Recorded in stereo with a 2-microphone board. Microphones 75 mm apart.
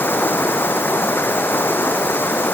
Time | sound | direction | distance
0.0 | running water | 30° left (ahead or behind) | ?